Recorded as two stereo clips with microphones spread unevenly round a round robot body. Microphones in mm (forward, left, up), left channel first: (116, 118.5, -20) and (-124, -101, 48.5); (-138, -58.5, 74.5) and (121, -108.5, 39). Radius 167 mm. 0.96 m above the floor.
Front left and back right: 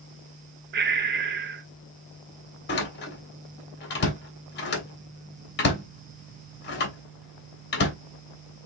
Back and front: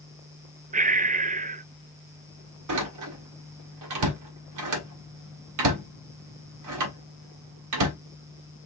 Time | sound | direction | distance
0.7 | breathing | 75° right | 0.5 m
2.7 | a door slam | 20° right | 1.6 m